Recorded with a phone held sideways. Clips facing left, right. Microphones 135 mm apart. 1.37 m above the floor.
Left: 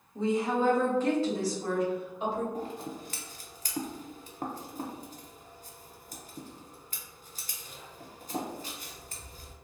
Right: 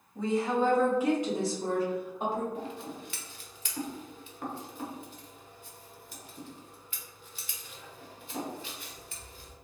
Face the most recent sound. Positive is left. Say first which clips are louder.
# left 2 dB
turn(degrees=40)  # may be behind; listen again after turning